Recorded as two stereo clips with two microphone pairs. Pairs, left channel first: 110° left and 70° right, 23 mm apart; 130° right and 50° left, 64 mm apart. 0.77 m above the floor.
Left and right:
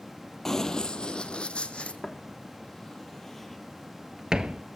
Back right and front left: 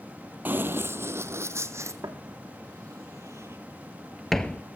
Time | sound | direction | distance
0.5 | running footsteps | 60° left | 0.8 m
2.0 | footsteps | 55° left | 2.5 m